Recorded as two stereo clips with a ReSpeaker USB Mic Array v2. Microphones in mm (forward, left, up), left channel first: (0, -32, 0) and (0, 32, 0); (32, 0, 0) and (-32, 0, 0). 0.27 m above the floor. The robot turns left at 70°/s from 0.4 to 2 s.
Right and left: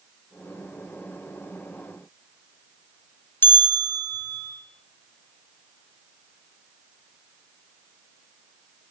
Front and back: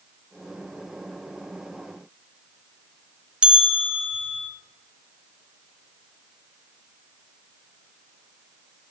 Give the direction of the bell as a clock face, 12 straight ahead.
4 o'clock.